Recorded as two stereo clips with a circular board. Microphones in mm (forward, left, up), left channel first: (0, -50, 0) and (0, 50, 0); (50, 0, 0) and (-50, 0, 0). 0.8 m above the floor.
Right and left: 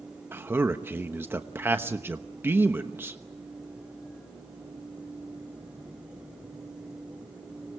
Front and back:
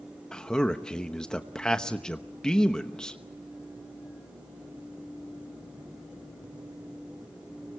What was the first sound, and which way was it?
A man speaking, 70° left.